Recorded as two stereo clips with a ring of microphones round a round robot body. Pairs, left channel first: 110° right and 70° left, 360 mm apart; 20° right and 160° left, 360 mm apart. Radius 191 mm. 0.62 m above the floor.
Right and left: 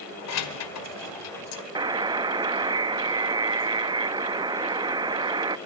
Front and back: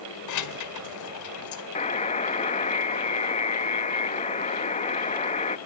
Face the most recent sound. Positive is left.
turn(degrees=10)